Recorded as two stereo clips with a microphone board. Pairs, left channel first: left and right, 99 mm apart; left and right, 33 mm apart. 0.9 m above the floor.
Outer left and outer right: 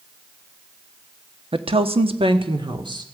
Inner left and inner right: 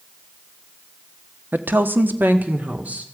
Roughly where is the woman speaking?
Right.